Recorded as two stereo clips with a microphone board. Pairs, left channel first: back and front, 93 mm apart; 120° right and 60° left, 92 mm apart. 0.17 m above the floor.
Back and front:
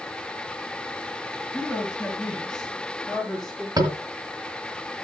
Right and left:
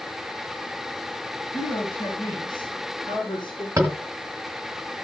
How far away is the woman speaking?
About 4 m.